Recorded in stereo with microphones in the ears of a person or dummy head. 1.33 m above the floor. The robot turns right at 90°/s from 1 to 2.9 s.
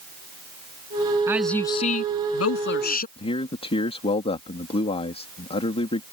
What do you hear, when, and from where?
1.3 s a woman speaking: 15° right; by 3.1 s 135° left
3.2 s a man speaking: 30° left (ahead or behind)